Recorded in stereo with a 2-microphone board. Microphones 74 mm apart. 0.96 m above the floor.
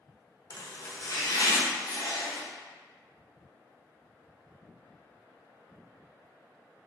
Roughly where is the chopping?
Left.